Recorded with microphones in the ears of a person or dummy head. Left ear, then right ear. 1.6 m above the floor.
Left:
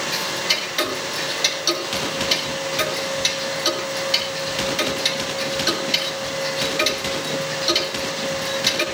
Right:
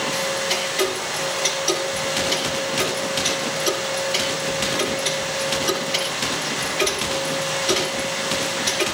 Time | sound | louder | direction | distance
0.1 | ticking | even | 65° left (ahead or behind) | 6.5 m